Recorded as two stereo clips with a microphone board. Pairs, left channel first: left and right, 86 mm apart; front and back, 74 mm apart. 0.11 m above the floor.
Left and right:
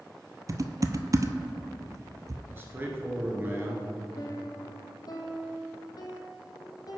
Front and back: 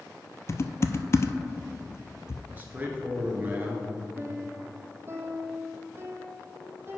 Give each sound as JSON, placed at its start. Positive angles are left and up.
{"t": 0.5, "sound": "typing on a keyboard", "azimuth_deg": -45, "distance_m": 0.5}
{"t": 2.5, "sound": "a man speaking", "azimuth_deg": -135, "distance_m": 1.6}
{"t": 4.2, "sound": "a piano", "azimuth_deg": 125, "distance_m": 1.2}